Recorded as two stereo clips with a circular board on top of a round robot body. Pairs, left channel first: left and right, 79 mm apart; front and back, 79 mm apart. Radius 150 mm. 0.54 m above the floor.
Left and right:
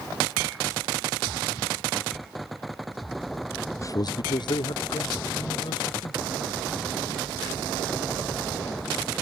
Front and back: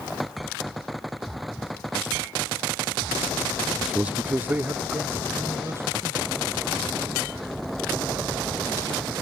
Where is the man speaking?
95° left; by 6.5 s 120° left.